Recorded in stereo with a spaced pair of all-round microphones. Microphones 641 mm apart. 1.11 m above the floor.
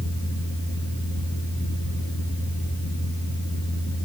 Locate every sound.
0.0 s a fan: 20° left (ahead or behind), 2.5 m